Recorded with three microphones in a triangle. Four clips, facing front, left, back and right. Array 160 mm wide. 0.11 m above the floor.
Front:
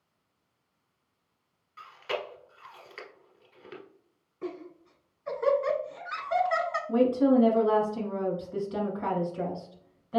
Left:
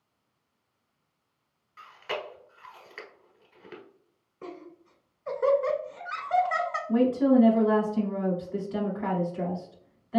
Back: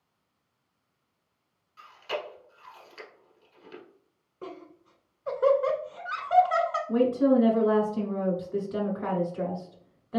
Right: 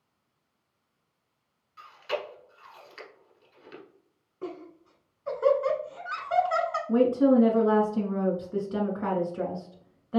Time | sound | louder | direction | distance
1.8 | chewing | right 2 dB, even | 60° left | 1.3 m
4.4 | laughter | right 4 dB, front 4 dB | 160° right | 1.2 m
6.9 | a woman speaking | right 1 dB, even | 100° right | 1.8 m